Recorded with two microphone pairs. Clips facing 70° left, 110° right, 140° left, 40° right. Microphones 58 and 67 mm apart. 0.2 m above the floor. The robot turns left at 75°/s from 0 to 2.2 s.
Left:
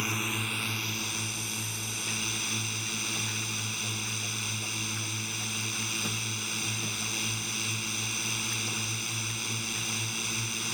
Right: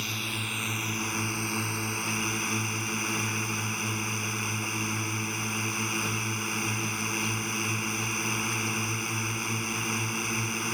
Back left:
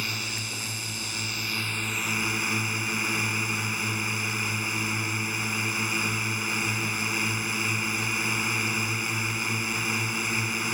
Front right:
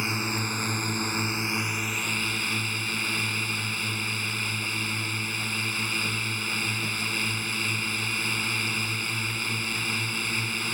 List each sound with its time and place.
0.0 s a drone: 15° left; by 10.7 s 150° right